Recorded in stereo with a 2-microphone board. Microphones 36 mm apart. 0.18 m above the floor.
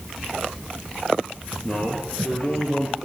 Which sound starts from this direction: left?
A man speaking, at 1.6 s.